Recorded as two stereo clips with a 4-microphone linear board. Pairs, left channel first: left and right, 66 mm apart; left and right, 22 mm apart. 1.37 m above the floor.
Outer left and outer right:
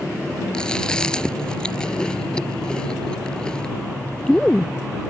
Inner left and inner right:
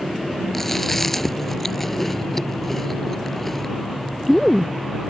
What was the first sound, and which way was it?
Chewing, 10° left (ahead or behind).